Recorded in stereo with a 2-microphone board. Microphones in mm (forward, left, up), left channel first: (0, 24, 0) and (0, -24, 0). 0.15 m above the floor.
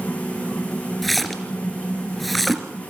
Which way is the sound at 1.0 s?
Centre (ahead or behind).